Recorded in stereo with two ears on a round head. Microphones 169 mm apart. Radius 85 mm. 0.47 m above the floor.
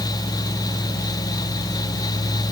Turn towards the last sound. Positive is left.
No sound to turn to.